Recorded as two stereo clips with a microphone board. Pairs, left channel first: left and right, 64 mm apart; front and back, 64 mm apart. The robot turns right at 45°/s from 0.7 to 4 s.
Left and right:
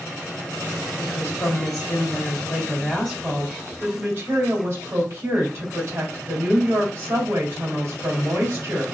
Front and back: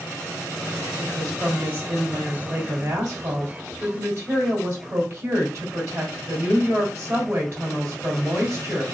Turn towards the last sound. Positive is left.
turn(degrees=-135)